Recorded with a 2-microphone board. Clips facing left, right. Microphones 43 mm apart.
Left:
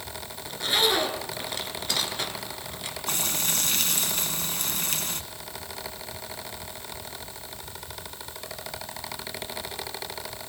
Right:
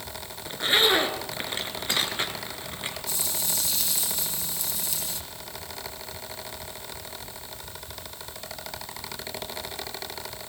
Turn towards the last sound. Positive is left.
turn(degrees=55)  # may be behind; listen again after turning